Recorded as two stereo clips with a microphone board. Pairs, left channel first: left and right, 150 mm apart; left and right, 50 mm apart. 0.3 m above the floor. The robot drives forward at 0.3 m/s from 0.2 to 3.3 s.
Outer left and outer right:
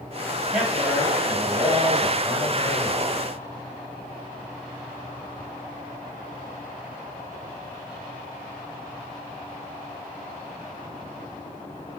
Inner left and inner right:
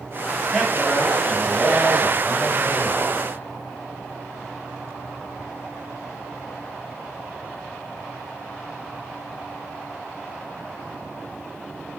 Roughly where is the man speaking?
Centre.